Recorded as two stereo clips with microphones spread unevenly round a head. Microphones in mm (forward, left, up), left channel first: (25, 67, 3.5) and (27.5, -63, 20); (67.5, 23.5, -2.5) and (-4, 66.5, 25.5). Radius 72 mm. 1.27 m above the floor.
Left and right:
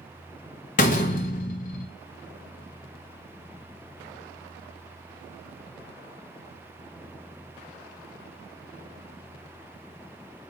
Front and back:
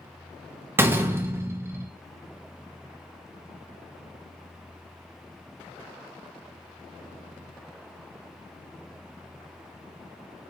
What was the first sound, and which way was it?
A door slam, 115° left.